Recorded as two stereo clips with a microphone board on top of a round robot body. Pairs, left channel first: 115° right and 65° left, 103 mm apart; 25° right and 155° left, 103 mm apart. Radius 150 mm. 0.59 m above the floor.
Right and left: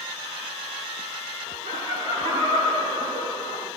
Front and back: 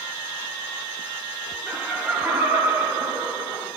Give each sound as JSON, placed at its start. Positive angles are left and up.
{"t": 1.7, "sound": "laughter", "azimuth_deg": 70, "distance_m": 4.5}